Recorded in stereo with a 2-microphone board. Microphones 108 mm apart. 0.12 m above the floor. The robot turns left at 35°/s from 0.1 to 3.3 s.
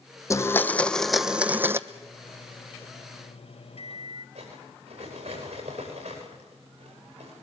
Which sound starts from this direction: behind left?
A microwave, at 1.9 s.